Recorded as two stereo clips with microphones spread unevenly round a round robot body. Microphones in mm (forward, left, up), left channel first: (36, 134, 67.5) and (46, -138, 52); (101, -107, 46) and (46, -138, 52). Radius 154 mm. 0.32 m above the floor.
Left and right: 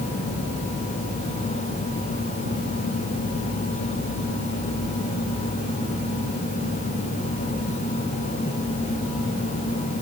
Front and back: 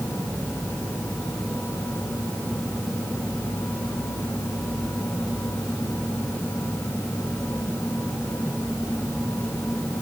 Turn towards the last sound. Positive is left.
No sound to turn to.